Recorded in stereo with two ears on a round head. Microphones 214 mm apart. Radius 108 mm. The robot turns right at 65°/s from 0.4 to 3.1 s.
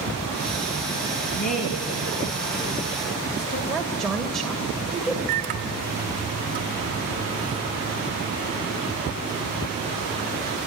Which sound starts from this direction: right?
A microwave, at 5.3 s.